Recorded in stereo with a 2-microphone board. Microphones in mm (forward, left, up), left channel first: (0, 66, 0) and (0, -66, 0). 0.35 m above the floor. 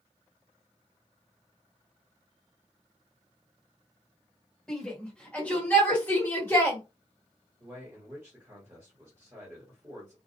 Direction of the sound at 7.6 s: 20° right (ahead or behind).